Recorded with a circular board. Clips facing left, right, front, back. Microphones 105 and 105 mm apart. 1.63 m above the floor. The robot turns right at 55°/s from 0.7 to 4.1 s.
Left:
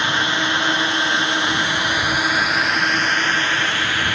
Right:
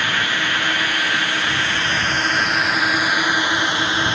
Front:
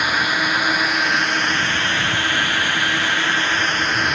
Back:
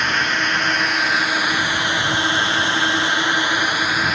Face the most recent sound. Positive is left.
turn(degrees=-100)